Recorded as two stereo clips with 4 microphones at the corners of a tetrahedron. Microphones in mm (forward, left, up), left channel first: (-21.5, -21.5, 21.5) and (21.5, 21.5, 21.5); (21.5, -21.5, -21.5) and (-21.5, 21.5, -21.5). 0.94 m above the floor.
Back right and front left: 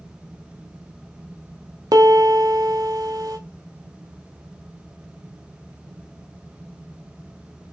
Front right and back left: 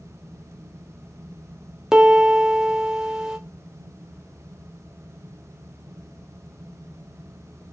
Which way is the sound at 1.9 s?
55° left.